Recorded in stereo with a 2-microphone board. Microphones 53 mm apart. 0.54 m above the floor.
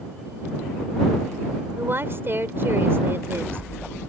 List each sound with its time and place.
1.8 s a woman speaking: 45° right (ahead or behind)